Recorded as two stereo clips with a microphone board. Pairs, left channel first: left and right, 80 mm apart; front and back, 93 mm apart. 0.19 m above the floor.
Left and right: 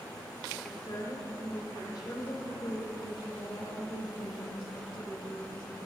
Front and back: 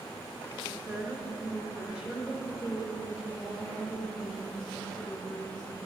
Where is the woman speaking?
115° left, 3.5 m; by 5.8 s 85° left, 5.5 m.